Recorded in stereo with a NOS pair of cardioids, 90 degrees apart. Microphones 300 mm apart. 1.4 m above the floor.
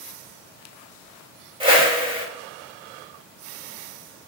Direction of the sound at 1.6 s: 15° right.